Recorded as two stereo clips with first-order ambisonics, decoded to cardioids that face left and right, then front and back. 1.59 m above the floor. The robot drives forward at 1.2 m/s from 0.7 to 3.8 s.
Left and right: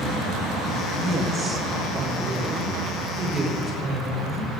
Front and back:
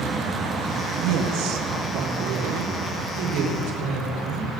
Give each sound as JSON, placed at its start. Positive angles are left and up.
{"t": 1.0, "sound": "a woman speaking", "azimuth_deg": -165, "distance_m": 2.0}